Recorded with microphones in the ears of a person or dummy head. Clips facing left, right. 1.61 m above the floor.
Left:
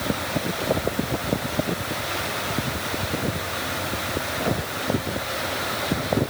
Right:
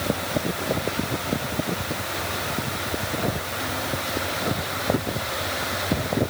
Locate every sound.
Only background noise.